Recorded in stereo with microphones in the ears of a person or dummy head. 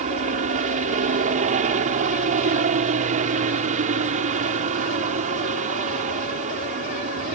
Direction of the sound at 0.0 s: 40° right (ahead or behind).